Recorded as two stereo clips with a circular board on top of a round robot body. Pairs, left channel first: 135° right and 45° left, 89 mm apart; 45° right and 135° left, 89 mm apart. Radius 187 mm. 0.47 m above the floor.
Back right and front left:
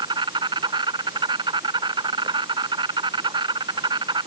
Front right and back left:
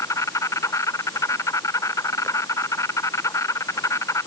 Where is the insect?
10° left.